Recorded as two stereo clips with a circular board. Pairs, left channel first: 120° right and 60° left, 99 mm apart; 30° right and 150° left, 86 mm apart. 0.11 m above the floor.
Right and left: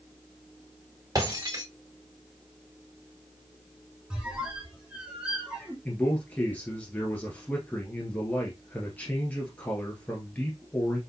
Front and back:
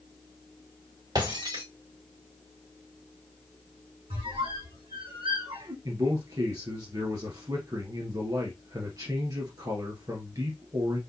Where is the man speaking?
170° left, 1.5 m.